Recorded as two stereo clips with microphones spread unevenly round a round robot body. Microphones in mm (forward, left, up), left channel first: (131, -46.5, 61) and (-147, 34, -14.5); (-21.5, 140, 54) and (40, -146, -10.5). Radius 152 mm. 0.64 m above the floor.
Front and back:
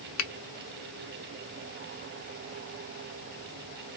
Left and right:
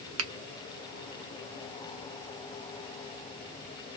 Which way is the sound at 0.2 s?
60° right.